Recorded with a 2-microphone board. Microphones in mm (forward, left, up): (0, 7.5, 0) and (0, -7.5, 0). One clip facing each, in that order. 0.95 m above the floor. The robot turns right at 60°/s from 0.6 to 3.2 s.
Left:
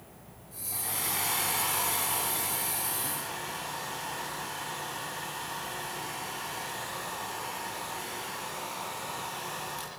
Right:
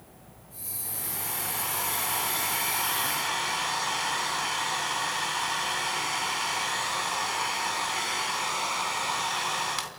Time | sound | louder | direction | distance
0.7 | a hair dryer | left 5 dB | 115° left | 3 m